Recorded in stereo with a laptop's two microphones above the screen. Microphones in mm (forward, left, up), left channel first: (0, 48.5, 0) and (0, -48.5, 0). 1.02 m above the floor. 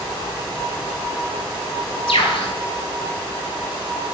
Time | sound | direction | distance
2.1 | a bird | 70° left (ahead or behind) | 1.6 m